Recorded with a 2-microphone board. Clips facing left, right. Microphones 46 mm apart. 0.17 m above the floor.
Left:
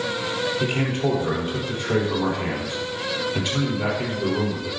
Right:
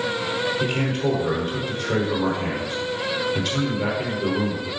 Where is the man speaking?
10° left (ahead or behind), 3 m.